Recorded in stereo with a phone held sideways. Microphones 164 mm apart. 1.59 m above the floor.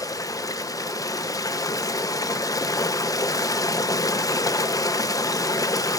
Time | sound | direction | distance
0.0 | running water | 20° left (ahead or behind) | 1.1 m